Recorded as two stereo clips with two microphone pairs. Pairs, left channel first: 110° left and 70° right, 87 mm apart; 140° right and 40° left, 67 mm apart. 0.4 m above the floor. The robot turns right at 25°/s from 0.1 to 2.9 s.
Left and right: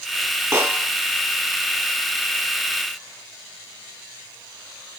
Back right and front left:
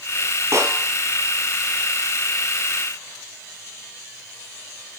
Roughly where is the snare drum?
Ahead.